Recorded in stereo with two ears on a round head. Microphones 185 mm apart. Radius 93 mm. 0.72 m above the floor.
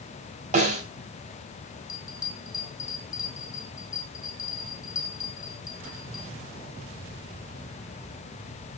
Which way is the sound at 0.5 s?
40° right (ahead or behind).